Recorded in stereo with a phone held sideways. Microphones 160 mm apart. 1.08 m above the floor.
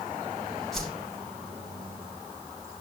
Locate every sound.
0.7 s a whoosh: centre (ahead or behind), 5 m